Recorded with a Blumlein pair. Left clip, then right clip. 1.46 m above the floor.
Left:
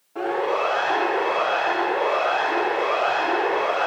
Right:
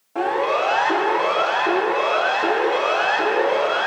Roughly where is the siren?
Ahead right.